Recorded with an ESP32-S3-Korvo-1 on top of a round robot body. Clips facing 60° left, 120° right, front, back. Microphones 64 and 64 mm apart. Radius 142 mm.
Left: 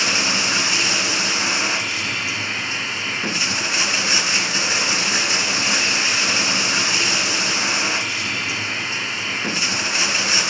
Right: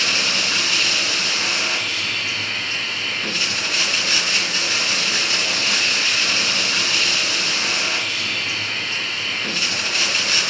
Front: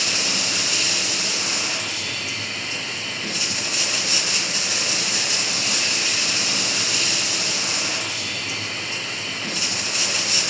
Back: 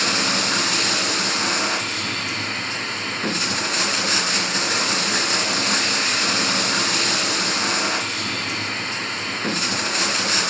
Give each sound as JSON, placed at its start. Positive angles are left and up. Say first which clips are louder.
{"t": 0.0, "sound": "running water", "louder": "left 1 dB, back 5 dB", "azimuth_deg": 130, "distance_m": 2.0}